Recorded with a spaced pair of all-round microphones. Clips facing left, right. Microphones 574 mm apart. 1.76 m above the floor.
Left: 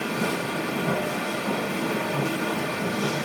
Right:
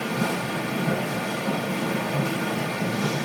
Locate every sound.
0.0 s a machine running: 10° right (ahead or behind), 3.5 m